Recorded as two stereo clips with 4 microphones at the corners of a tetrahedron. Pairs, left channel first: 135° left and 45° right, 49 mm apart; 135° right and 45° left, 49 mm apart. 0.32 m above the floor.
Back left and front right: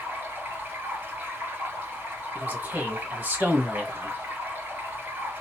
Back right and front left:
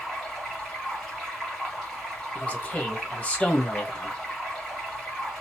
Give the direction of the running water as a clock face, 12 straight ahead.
2 o'clock.